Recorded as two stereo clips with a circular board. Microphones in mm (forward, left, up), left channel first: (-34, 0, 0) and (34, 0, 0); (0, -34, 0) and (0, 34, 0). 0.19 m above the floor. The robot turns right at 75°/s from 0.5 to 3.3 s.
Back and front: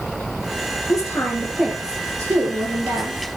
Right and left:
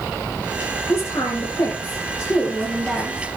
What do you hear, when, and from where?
0.9 s a woman speaking: 150° right, 3 m; by 3.3 s 30° left, 3 m